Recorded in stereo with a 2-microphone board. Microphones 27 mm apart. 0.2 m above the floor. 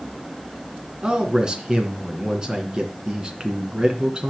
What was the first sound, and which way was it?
A man speaking, 30° right (ahead or behind).